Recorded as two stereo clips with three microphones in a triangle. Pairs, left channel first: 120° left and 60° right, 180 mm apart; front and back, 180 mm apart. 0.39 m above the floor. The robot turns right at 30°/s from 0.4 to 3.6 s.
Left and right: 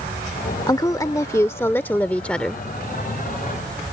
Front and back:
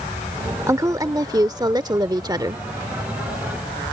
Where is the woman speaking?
145° left; by 2.6 s 160° right.